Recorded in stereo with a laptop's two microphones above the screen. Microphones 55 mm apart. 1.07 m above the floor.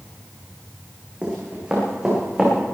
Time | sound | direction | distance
1.2 | running footsteps | 20° right (ahead or behind) | 4.5 m